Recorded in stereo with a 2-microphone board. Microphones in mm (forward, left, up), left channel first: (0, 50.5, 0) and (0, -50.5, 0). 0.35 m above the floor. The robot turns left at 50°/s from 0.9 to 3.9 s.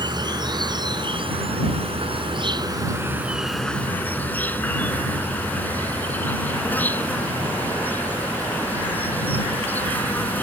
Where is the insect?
50° right; by 10.4 s 160° left.